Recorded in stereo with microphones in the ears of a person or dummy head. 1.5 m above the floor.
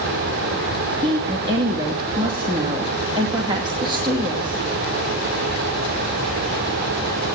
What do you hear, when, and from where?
1.0 s a woman speaking: 25° right (ahead or behind), 2.5 m